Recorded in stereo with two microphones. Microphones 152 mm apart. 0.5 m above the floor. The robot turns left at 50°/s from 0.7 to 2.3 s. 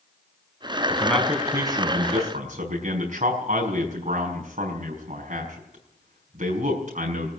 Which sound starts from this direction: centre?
A man speaking, at 0.9 s.